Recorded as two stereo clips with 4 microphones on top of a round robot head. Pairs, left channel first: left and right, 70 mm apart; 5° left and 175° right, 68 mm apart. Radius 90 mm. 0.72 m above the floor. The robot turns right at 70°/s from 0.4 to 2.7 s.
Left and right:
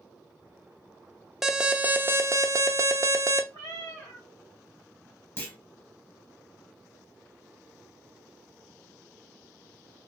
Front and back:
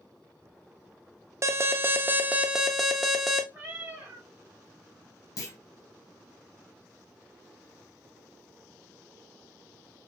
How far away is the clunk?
About 0.9 m.